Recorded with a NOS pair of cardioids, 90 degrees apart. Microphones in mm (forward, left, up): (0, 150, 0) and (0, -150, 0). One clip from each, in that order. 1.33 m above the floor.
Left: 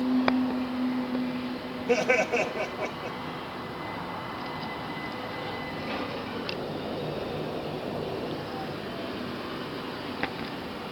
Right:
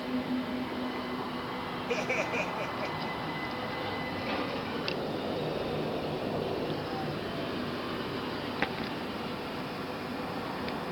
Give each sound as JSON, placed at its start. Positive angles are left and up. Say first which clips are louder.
{"t": 1.9, "sound": "laughter", "louder": "left 8 dB", "azimuth_deg": 55, "distance_m": 1.5}